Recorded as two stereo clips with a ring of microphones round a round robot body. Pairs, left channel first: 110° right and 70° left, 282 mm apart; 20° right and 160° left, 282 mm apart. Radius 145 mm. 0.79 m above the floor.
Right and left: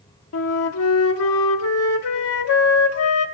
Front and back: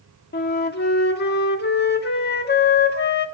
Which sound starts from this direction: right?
A flute, at 0.3 s.